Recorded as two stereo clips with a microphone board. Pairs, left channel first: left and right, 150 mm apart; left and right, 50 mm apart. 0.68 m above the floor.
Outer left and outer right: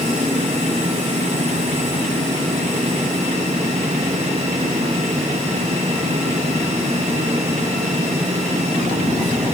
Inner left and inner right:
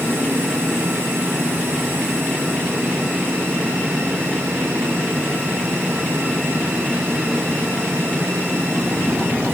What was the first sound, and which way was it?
Only background noise.